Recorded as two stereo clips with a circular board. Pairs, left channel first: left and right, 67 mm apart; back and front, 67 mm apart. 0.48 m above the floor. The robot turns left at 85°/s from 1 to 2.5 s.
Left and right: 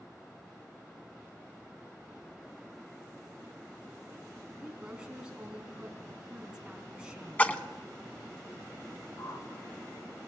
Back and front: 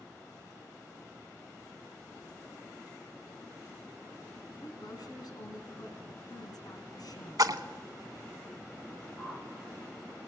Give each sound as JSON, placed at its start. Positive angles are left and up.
{"t": 4.6, "sound": "a woman speaking", "azimuth_deg": -170, "distance_m": 3.5}
{"t": 7.4, "sound": "a splash", "azimuth_deg": 20, "distance_m": 0.8}
{"t": 9.2, "sound": "a whoosh", "azimuth_deg": 110, "distance_m": 1.8}